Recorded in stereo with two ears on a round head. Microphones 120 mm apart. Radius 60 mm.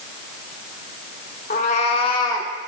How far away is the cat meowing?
About 1.3 m.